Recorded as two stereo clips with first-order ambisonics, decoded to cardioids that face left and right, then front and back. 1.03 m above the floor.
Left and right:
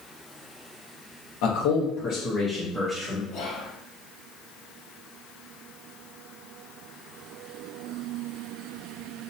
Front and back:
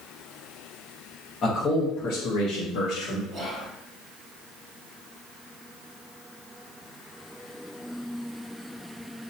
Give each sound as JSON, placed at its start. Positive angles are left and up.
{"t": 1.4, "sound": "a man speaking", "azimuth_deg": 70, "distance_m": 0.9}
{"t": 3.3, "sound": "whispering", "azimuth_deg": 120, "distance_m": 1.5}